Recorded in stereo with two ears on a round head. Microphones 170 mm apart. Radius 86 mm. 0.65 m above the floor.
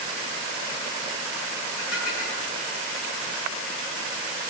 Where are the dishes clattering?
50° left (ahead or behind), 7.5 m.